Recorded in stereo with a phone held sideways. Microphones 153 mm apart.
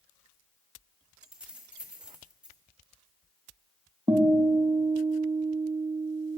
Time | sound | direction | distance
1.2 | keys jangling | 10° right (ahead or behind) | 1.4 m
4.1 | a guitar | 30° right (ahead or behind) | 1.2 m